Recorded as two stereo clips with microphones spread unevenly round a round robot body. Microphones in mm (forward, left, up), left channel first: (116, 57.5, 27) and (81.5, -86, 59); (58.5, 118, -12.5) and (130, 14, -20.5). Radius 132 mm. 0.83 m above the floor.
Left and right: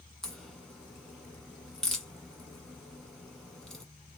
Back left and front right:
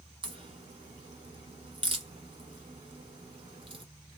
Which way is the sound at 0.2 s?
20° right.